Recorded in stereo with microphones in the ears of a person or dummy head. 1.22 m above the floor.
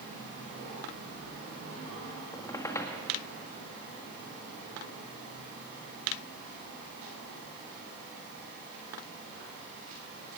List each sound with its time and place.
2.3 s a squeak: 10° left (ahead or behind), 1.7 m